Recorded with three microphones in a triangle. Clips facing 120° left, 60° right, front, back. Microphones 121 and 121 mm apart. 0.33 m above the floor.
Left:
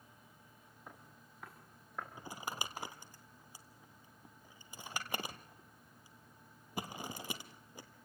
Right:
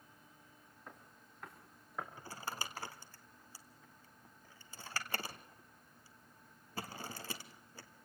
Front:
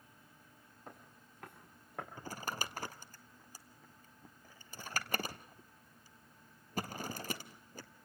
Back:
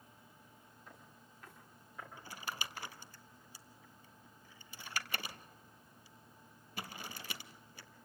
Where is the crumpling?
45° left, 1.4 m.